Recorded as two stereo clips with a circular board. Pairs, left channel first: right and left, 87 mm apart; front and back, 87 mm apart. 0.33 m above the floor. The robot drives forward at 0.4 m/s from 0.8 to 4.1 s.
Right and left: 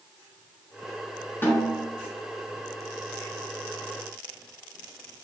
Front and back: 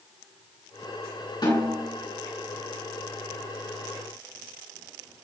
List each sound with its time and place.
1.4 s a snare drum: 25° right, 4 m; by 1.8 s 30° right, 4 m